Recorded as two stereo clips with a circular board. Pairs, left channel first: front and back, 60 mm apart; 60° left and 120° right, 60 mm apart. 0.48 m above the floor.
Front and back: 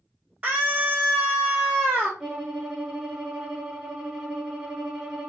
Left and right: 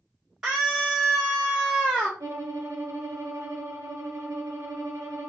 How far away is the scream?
About 1.1 m.